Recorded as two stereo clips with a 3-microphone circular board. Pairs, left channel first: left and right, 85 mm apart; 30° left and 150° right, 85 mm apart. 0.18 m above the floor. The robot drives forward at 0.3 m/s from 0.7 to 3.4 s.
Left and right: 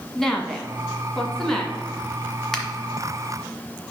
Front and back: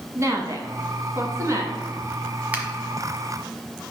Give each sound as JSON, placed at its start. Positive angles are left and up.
{"t": 0.1, "sound": "a woman speaking", "azimuth_deg": 175, "distance_m": 1.5}
{"t": 2.5, "sound": "a finger snap", "azimuth_deg": 170, "distance_m": 1.3}